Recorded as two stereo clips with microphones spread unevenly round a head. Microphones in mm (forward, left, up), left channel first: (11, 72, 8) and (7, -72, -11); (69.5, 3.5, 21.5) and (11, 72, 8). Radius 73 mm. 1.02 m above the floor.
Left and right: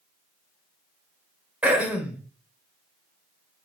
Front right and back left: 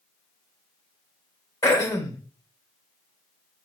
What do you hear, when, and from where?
1.6 s throat clearing: 5° right, 1.2 m